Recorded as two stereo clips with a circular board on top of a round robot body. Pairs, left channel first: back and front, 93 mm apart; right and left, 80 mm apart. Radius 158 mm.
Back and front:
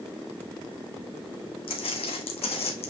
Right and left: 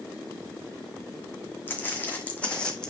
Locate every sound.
1.7 s footsteps: 155° right, 2.5 m; by 2.9 s 170° right, 2 m